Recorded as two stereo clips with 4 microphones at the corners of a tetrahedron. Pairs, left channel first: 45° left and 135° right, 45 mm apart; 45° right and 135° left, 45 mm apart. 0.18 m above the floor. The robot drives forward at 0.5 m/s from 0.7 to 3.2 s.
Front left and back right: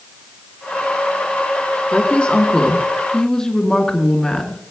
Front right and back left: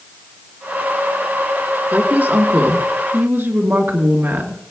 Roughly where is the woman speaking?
Left.